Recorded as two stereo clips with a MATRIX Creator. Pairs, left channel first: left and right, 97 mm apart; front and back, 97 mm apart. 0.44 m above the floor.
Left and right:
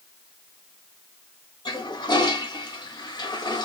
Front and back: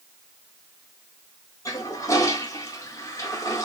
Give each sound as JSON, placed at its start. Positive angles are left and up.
{"t": 1.6, "sound": "a toilet flushing", "azimuth_deg": 55, "distance_m": 1.1}